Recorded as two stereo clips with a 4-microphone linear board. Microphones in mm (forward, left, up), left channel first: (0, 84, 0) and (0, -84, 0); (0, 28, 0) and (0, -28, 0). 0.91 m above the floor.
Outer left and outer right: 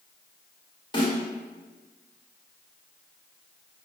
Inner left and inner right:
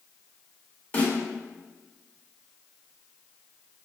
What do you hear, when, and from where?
0.9 s a snare drum: 30° left (ahead or behind), 1.2 m